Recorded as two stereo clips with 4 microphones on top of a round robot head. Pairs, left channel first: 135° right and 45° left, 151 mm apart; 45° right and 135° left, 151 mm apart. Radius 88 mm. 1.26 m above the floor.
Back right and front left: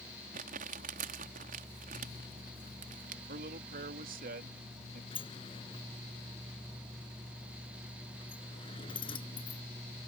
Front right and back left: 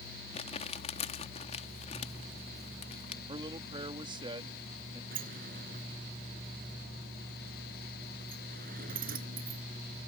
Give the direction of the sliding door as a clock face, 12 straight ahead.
6 o'clock.